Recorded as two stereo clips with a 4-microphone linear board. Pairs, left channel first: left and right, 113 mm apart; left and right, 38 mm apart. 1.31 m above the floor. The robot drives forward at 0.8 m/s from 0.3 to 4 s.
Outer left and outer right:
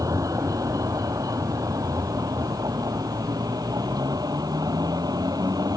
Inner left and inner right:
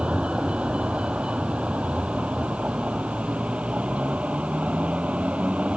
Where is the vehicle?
30° right (ahead or behind); by 5.8 s 35° right (ahead or behind).